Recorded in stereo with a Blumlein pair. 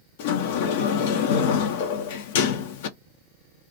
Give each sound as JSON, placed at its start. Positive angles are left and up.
{"t": 0.2, "sound": "a sliding door", "azimuth_deg": 50, "distance_m": 0.5}